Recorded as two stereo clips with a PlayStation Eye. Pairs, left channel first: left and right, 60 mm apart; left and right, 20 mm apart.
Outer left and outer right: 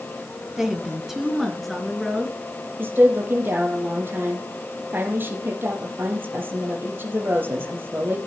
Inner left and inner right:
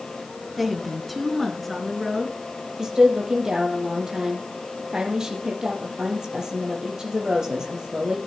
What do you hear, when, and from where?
0.6 s a woman speaking: 10° right (ahead or behind), 2 m; by 2.4 s 5° left (ahead or behind), 3.5 m
2.8 s a woman speaking: 35° right (ahead or behind), 4.5 m